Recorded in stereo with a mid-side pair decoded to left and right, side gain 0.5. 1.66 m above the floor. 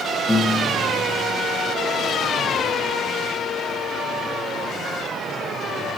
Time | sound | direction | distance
0.3 | a piano | 5° right | 1.9 m